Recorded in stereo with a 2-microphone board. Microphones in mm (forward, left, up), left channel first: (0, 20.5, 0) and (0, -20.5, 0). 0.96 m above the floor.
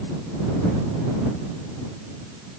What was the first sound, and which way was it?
Only background noise.